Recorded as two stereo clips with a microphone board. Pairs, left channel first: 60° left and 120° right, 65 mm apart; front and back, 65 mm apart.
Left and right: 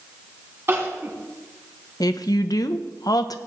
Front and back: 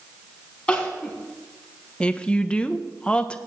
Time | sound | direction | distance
0.7 | crying | 70° right | 2.5 m
2.0 | a woman speaking | 75° left | 0.8 m